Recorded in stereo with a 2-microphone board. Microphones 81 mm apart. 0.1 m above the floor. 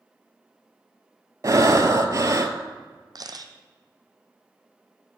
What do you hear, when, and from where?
1.4 s breathing: 45° right (ahead or behind), 0.6 m
3.1 s a camera shutter: 55° right (ahead or behind), 0.7 m